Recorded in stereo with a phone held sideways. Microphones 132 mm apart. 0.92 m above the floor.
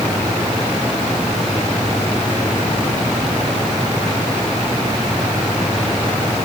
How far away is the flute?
I don't hear a flute.